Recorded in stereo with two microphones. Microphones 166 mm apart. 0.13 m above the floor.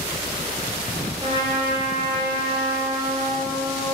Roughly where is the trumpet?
Right.